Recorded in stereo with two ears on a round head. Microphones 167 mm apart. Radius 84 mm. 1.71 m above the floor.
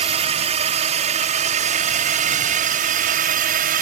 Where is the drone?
35° right (ahead or behind); by 3.8 s 50° right (ahead or behind).